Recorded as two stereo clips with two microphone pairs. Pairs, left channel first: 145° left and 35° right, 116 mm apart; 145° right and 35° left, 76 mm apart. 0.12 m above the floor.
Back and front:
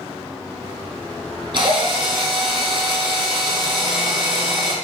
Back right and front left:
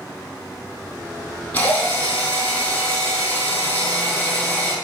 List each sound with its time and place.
1.5 s a drill: 80° right, 3 m